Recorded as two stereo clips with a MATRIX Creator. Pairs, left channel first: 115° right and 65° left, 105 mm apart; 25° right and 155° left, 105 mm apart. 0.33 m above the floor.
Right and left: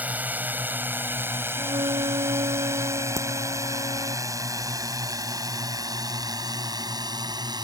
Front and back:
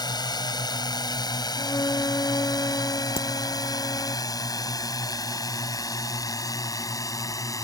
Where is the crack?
5° left.